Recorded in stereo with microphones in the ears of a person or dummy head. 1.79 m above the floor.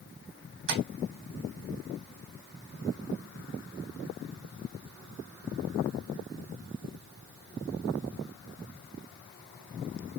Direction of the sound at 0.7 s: 65° right (ahead or behind).